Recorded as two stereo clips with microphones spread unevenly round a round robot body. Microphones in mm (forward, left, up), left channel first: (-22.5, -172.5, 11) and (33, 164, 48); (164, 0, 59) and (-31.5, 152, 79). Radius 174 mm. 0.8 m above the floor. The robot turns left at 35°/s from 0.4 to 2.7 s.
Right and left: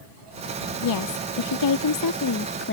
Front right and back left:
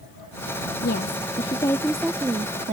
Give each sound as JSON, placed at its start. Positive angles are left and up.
{"t": 0.8, "sound": "a woman speaking", "azimuth_deg": -85}